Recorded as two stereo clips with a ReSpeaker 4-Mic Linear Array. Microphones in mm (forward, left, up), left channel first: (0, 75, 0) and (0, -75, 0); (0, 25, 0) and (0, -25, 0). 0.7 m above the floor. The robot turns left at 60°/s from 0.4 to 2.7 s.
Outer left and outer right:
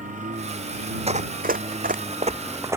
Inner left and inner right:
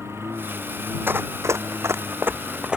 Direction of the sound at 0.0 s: 55° right (ahead or behind).